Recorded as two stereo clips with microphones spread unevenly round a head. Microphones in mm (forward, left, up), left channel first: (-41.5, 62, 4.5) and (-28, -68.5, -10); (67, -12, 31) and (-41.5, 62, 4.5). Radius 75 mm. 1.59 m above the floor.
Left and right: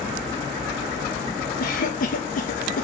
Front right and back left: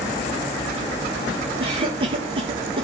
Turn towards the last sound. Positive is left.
turn(degrees=90)